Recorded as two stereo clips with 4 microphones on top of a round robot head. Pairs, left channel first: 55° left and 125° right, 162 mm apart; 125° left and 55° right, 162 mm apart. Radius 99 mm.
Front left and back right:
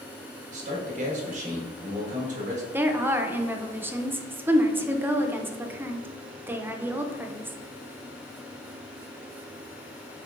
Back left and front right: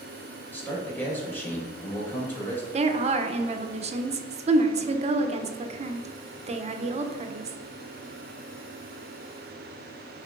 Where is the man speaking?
160° right, 1.3 m.